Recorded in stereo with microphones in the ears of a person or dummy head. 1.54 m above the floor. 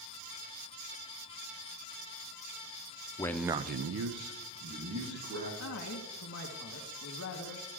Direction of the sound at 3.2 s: 15° left (ahead or behind).